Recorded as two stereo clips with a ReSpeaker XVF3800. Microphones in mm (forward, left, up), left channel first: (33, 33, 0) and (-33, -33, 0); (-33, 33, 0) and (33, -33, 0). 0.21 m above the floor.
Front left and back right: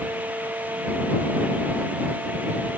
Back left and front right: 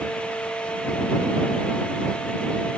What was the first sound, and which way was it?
Only background noise.